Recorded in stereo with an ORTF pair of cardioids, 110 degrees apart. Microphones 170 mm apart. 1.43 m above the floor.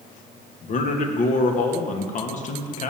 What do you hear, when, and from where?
0.6 s a man speaking: 45° left, 1.3 m